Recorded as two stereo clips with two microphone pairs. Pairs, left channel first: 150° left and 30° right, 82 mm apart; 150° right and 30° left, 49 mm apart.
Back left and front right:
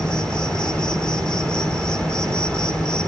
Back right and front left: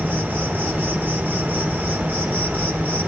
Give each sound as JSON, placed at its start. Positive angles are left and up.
{"t": 0.0, "sound": "an insect", "azimuth_deg": 75, "distance_m": 1.8}